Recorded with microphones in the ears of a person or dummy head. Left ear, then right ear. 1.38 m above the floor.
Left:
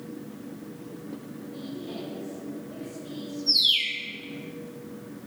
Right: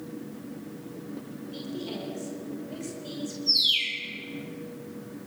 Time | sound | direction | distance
1.5 | a woman speaking | 65° right (ahead or behind) | 6 m
3.5 | a bird | 5° left (ahead or behind) | 2.5 m